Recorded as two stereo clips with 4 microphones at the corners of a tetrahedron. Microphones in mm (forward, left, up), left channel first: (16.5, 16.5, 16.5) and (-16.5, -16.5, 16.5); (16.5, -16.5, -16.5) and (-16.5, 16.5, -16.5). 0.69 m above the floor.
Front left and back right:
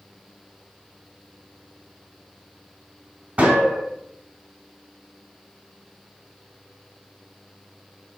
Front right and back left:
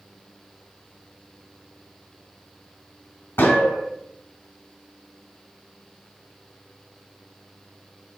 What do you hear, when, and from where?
3.4 s a gunshot: 75° right, 1.9 m